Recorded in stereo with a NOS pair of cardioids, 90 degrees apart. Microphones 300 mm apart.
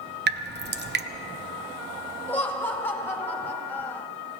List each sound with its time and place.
0.3 s dripping: 35° right, 0.9 m
2.3 s laughter: 5° left, 2.5 m